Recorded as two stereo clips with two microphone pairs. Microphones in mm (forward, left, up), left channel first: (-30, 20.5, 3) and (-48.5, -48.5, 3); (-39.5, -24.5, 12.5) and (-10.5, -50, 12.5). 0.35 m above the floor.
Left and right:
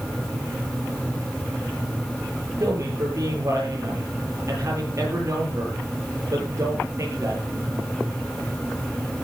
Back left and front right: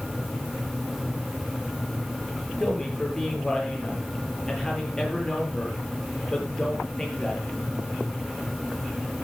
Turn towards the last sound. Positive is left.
turn(degrees=-150)